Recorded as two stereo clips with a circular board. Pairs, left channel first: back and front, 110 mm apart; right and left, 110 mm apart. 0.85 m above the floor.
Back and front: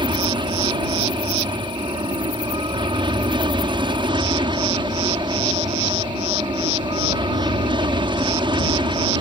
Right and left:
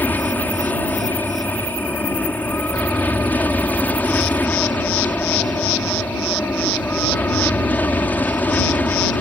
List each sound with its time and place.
0.0 s an aircraft: 20° right